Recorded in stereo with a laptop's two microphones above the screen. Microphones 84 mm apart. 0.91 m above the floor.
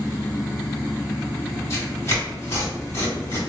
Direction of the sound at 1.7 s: 40° left (ahead or behind).